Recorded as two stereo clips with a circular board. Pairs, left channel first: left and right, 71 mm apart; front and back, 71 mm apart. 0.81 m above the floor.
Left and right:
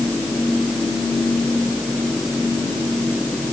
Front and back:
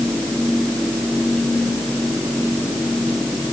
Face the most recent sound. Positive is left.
No sound to turn to.